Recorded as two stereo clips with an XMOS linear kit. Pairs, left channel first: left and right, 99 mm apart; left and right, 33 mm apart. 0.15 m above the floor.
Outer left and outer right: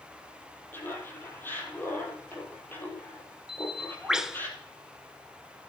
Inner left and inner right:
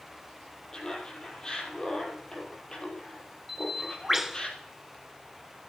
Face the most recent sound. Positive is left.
turn(degrees=-5)  # may be behind; listen again after turning